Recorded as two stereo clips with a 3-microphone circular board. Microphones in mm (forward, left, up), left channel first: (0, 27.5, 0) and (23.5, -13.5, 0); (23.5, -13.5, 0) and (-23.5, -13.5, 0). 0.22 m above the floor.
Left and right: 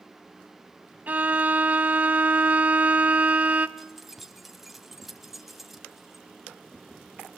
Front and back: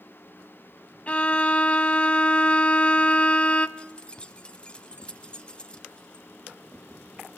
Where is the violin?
40° right, 0.5 m.